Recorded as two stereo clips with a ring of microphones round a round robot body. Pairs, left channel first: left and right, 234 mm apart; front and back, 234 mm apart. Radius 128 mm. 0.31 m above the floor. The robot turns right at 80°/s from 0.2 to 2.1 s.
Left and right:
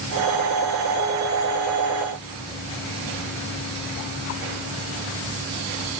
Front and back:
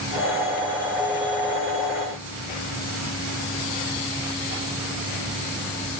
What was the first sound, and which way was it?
Only background noise.